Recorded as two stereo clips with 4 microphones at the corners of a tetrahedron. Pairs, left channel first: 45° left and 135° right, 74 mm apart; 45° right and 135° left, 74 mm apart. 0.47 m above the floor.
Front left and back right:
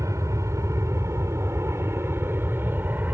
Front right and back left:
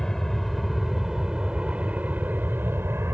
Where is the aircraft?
125° right; by 3.1 s 170° left.